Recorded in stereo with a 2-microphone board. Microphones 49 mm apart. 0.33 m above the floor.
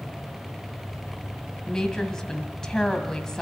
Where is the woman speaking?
10° left (ahead or behind), 2 m.